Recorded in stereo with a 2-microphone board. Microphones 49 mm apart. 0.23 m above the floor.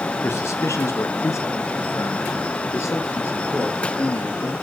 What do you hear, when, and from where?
0.2 s a man speaking: 65° left (ahead or behind), 2.5 m; by 4.5 s 60° left (ahead or behind), 5 m